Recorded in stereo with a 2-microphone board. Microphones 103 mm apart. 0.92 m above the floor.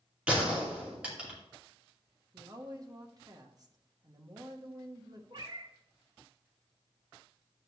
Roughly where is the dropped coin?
I don't hear a dropped coin.